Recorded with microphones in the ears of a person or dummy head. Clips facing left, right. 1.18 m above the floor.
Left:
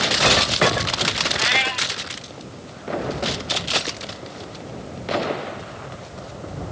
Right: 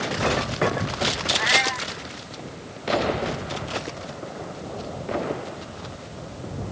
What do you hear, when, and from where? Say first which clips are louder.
1.4 s a cat meowing: even; 45° left (ahead or behind)